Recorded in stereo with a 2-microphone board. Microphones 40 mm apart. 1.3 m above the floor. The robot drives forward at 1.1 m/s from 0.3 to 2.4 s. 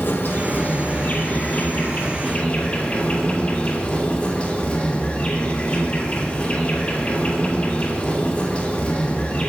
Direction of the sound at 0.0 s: 60° left (ahead or behind).